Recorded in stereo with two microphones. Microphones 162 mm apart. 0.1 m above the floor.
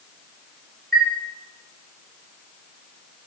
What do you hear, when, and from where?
0.9 s a chime: 75° right (ahead or behind), 9 m